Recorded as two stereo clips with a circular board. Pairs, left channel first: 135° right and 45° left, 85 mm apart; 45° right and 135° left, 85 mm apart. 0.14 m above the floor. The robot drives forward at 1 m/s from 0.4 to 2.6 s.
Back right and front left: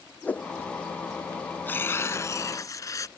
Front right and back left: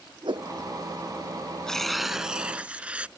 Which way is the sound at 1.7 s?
115° right.